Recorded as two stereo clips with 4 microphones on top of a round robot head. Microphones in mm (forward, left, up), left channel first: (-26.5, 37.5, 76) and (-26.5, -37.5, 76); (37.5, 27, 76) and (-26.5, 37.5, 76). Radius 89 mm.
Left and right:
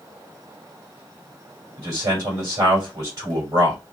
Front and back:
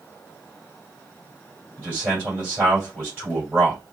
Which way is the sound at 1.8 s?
120° right.